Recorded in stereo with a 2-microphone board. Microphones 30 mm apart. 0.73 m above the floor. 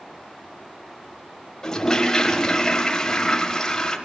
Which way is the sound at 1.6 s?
20° left (ahead or behind).